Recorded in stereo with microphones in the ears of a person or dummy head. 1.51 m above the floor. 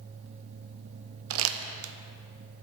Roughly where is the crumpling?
Right.